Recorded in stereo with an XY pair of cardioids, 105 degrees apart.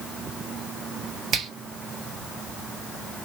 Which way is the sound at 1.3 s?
65° right.